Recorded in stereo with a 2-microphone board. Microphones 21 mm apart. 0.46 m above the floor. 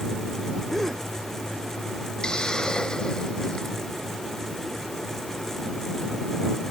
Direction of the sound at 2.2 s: 40° left (ahead or behind).